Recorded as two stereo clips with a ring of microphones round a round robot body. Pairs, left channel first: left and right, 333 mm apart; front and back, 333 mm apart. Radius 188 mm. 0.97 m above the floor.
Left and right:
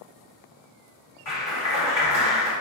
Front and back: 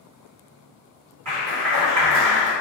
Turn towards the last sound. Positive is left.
turn(degrees=140)